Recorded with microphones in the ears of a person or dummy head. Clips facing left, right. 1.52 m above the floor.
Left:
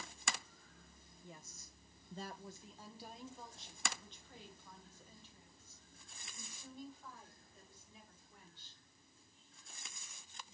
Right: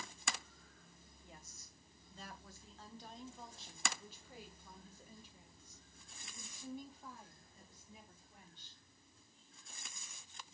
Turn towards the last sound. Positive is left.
turn(degrees=-20)  # may be behind; listen again after turning